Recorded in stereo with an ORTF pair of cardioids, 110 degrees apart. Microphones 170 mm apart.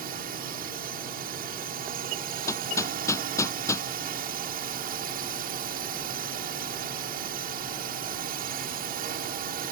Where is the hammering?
15° left.